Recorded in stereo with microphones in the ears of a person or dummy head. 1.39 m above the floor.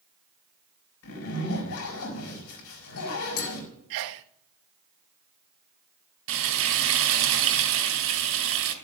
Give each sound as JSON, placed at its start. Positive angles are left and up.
{"t": 1.0, "sound": "a zipper", "side_deg": 65, "distance_m": 4.0}
{"t": 3.9, "sound": "a sneeze", "side_deg": -65, "distance_m": 0.8}
{"t": 6.3, "sound": "frying", "side_deg": -70, "distance_m": 3.0}